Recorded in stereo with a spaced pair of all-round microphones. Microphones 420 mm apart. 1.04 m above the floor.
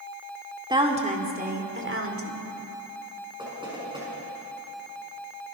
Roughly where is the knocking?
Centre.